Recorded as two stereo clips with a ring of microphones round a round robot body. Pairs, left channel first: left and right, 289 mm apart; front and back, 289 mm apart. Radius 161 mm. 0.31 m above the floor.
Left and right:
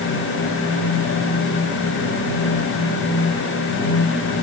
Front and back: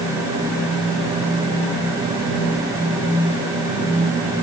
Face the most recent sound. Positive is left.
No sound to turn to.